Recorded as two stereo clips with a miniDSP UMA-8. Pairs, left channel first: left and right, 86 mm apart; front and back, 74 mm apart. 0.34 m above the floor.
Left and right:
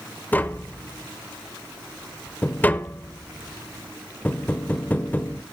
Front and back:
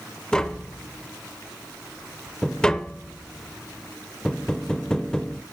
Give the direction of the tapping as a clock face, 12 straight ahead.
10 o'clock.